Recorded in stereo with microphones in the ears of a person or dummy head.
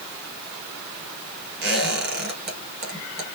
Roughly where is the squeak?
Right.